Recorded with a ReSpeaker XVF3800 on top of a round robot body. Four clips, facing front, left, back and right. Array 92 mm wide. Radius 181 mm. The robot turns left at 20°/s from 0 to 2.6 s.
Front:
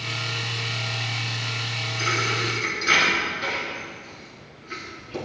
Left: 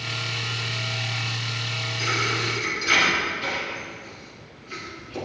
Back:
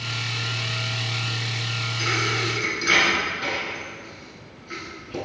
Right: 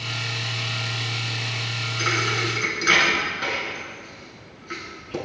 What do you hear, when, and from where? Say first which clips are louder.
2.0 s a thud: right 2 dB, even; 80° right, 3 m; by 5.2 s 95° right, 3 m